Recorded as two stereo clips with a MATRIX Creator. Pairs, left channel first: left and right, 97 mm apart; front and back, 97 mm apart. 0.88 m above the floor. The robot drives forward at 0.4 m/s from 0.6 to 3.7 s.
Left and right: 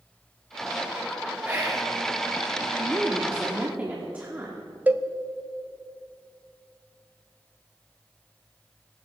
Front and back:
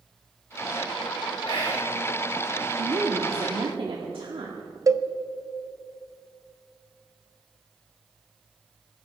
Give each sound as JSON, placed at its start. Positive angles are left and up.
{"t": 1.4, "sound": "whispering", "azimuth_deg": -25, "distance_m": 2.5}
{"t": 2.8, "sound": "a woman speaking", "azimuth_deg": -160, "distance_m": 1.3}
{"t": 4.9, "sound": "a cowbell", "azimuth_deg": -155, "distance_m": 0.5}